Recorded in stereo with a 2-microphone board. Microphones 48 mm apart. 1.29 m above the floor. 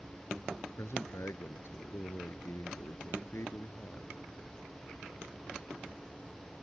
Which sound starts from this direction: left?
A man speaking, at 0.8 s.